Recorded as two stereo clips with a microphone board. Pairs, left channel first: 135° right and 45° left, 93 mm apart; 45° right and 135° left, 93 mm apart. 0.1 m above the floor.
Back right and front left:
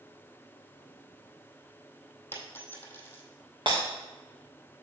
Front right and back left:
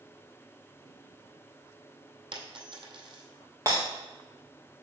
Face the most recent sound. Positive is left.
turn(degrees=85)